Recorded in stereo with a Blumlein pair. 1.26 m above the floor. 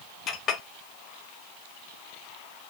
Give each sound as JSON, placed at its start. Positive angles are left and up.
{"t": 0.3, "sound": "a clink", "azimuth_deg": 30, "distance_m": 1.0}